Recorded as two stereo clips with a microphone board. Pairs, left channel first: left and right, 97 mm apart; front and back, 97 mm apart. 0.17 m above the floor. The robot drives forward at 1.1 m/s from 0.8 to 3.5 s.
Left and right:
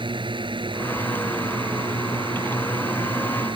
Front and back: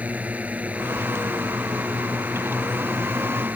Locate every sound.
0.0 s a drone: 105° right